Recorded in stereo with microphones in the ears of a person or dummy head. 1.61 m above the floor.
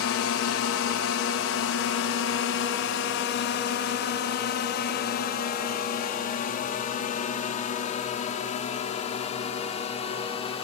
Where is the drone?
70° left (ahead or behind); by 10.7 s 30° left (ahead or behind).